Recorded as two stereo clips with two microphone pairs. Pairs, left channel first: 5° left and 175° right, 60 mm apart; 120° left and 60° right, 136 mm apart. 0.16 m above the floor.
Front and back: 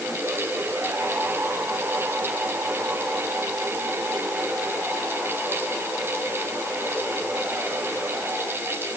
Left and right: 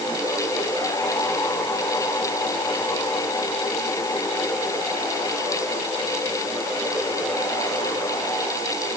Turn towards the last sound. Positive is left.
No sound to turn to.